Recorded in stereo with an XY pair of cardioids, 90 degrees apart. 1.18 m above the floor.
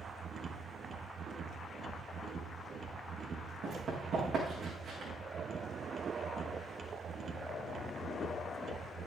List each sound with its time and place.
0.0 s a machine running: 50° right, 1.3 m
3.6 s running footsteps: 65° right, 6 m